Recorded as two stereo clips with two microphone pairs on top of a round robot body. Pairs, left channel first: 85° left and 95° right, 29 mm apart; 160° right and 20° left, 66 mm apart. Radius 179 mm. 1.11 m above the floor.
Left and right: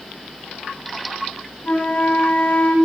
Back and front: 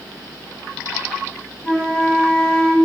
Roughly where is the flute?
Behind left.